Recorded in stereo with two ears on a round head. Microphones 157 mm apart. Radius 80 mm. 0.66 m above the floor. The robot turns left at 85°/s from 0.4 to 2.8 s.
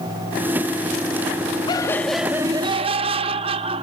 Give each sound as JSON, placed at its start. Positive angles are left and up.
{"t": 1.7, "sound": "laughter", "azimuth_deg": 40, "distance_m": 0.8}